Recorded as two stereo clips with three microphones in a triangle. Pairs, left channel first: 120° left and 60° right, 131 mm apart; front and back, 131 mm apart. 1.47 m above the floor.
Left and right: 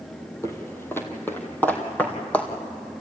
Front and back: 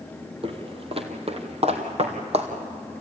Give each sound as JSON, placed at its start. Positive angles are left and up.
{"t": 0.4, "sound": "footsteps", "azimuth_deg": 180, "distance_m": 1.9}